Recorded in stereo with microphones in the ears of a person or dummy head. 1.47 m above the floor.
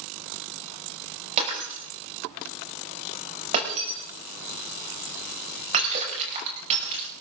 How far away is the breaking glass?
About 5.5 m.